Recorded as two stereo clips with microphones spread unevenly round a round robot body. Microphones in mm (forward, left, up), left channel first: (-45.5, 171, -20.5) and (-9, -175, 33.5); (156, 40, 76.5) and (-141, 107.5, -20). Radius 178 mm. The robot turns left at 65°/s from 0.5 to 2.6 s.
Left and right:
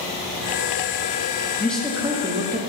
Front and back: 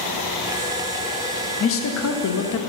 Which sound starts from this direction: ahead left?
A man speaking, at 1.6 s.